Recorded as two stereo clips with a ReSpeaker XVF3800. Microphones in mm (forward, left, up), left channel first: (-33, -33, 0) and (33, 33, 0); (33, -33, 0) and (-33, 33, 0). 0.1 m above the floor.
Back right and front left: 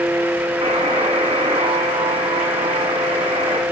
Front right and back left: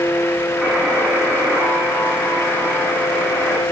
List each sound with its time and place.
0.6 s a buzzer: 55° left, 8 m